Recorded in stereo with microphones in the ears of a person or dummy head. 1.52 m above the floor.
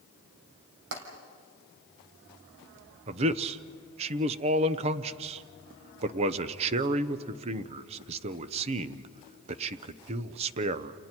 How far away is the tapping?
About 3.5 m.